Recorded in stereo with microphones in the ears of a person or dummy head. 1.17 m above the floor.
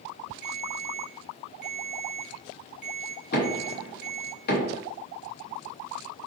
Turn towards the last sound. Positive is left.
turn(degrees=50)  # may be behind; listen again after turning